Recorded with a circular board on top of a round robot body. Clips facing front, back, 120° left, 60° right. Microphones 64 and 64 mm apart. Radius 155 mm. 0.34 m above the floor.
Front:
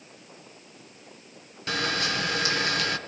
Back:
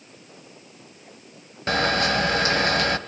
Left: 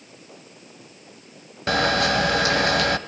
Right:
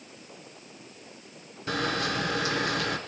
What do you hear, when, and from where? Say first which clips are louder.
1.7 s a camera shutter: back 7 dB, left 8 dB; 135° left, 1.6 m